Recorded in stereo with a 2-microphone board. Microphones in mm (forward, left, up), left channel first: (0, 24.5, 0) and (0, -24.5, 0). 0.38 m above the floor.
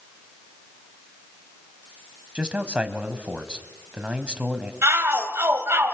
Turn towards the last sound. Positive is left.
turn(degrees=-60)  # may be behind; listen again after turning